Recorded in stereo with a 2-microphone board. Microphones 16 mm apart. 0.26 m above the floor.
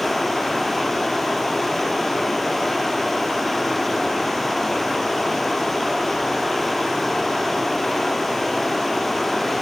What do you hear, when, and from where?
0.0 s running water: 10° left (ahead or behind), 1.0 m